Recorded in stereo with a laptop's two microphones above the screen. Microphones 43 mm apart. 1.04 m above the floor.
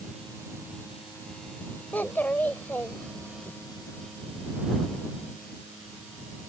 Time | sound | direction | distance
1.9 | a child speaking | 50° left (ahead or behind) | ?